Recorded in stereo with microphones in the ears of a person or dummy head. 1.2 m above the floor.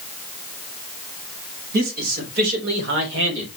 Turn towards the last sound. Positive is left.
turn(degrees=-85)